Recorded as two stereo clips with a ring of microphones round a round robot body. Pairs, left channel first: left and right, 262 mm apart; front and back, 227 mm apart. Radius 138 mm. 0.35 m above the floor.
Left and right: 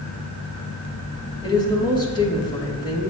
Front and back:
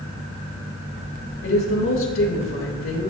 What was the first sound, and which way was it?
A woman speaking, 20° left.